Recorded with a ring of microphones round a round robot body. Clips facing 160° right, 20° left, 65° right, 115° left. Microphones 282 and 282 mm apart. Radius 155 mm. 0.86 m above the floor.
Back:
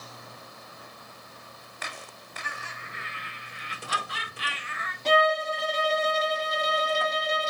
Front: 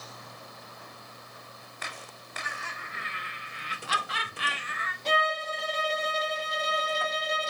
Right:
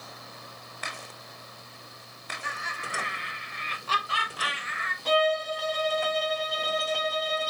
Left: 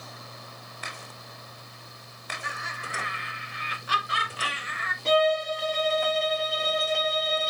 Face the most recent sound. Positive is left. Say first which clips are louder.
# back 7 dB, left 2 dB
turn(degrees=180)